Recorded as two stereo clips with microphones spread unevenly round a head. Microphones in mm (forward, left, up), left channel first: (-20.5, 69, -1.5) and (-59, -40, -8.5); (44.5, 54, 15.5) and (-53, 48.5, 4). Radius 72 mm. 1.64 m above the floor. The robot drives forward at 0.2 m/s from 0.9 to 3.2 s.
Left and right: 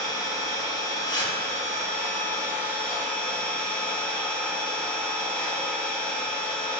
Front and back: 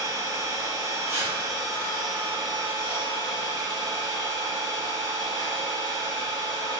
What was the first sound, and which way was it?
An engine running, 125° left.